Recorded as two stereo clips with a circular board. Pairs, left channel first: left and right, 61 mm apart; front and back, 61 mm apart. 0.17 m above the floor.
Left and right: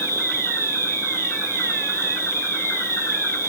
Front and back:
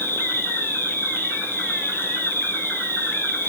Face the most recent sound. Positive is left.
turn(degrees=50)